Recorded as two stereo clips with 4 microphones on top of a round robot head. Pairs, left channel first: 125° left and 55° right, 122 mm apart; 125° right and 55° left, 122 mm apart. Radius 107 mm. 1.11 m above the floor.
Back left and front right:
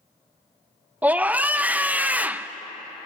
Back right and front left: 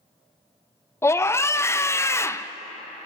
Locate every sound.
1.0 s a scream: 110° right, 0.6 m